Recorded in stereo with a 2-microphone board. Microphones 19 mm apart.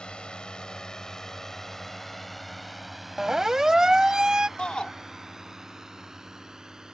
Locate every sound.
0.0 s a drone: 55° left (ahead or behind); by 6.9 s 35° right (ahead or behind)
3.2 s a siren: 25° right (ahead or behind); by 4.5 s 35° right (ahead or behind)
4.6 s a shout: 55° left (ahead or behind)